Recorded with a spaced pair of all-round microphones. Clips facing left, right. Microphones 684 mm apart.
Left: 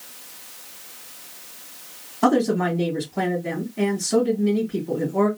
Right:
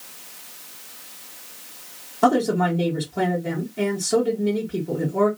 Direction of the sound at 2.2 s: 10° right (ahead or behind).